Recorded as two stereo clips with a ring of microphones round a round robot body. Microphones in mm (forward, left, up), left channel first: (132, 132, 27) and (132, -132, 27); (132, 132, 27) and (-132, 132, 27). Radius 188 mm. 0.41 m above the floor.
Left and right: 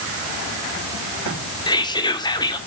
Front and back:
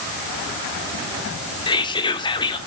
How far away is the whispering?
About 0.8 m.